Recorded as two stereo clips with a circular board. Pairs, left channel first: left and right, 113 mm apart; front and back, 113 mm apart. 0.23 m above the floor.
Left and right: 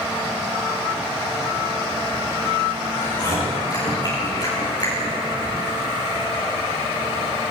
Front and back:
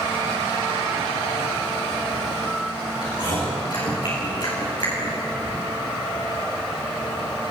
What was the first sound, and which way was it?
Chewing, 40° left.